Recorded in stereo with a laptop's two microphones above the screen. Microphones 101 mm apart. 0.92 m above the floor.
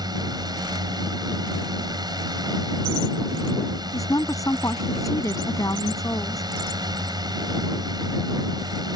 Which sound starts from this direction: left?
A woman speaking, at 3.9 s.